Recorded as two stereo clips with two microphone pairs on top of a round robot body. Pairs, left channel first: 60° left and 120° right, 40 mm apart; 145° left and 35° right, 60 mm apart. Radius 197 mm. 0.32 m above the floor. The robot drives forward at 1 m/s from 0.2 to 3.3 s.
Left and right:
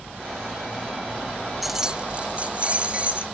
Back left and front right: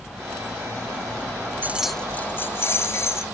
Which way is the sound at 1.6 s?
45° right.